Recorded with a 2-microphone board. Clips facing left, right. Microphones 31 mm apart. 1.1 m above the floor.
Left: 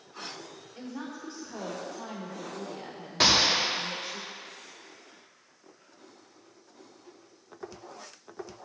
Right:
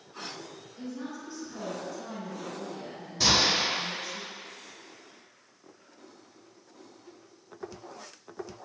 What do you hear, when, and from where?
0.8 s a woman speaking: 75° left (ahead or behind), 3 m
3.2 s a gunshot: 75° left (ahead or behind), 1.9 m